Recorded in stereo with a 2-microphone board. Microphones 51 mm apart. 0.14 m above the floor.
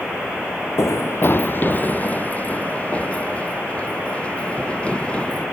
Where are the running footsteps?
75° left (ahead or behind); by 5.4 s 20° left (ahead or behind).